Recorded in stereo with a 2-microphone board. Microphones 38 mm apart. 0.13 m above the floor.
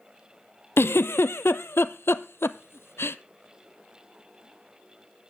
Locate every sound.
0.8 s a giggle: 80° left, 0.6 m